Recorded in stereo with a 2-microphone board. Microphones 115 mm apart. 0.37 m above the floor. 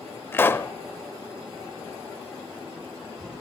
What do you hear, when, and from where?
0.3 s a pop: 20° left (ahead or behind), 0.6 m